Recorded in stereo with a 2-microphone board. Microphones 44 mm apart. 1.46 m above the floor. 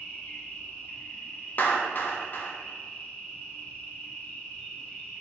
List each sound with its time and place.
0.0 s an insect: 35° left (ahead or behind), 0.9 m
1.6 s a clap: 45° left (ahead or behind), 0.7 m